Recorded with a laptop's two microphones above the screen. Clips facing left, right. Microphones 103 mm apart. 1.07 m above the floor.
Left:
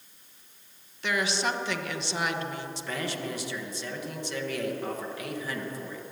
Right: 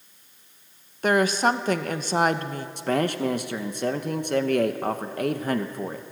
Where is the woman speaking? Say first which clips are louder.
Right 8 dB; 45° right (ahead or behind), 1.0 m.